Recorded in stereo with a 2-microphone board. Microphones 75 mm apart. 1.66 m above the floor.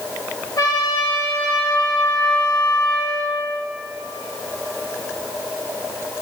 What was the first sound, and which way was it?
A trumpet, 60° left (ahead or behind).